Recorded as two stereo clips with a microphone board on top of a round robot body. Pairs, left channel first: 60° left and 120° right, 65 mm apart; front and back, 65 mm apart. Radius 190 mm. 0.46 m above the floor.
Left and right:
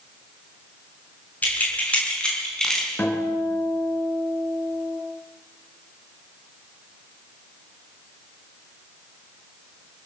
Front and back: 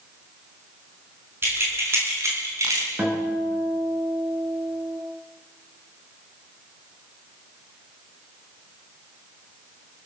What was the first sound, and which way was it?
Keys jangling, 125° left.